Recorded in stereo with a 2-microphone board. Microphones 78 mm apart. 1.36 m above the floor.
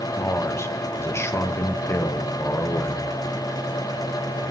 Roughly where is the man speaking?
Left.